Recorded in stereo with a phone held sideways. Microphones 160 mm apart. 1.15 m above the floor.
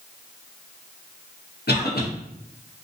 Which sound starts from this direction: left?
A cough, at 1.7 s.